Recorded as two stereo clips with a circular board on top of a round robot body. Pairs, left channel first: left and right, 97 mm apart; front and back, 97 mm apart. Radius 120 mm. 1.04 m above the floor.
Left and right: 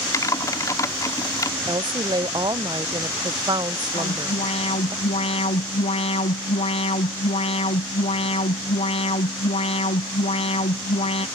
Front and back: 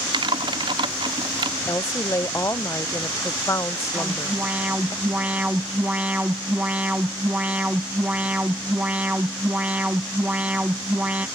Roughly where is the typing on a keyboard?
Behind left.